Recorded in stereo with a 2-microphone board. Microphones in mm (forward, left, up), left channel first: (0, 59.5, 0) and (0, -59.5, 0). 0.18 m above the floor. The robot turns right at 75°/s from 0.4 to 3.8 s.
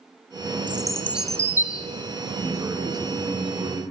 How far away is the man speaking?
About 1.9 m.